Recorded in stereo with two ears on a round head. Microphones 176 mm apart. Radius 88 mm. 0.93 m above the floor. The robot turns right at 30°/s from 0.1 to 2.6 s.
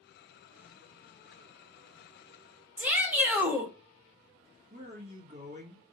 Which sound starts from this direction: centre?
A shout, at 2.8 s.